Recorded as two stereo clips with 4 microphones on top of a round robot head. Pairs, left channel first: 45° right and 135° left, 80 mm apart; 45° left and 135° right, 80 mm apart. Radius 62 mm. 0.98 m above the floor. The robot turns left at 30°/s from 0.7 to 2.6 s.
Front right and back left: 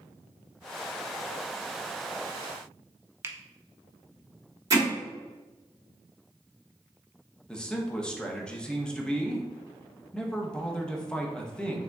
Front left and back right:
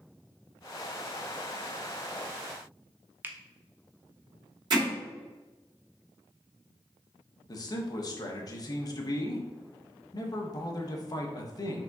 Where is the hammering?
175° right, 1.7 m.